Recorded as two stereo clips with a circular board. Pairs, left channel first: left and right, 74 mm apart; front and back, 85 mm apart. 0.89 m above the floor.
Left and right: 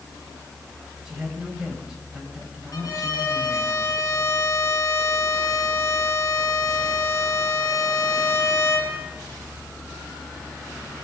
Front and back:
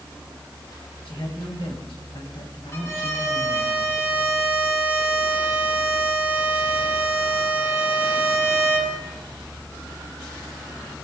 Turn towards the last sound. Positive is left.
turn(degrees=55)